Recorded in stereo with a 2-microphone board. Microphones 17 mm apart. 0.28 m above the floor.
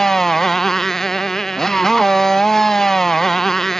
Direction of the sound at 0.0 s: 25° left (ahead or behind).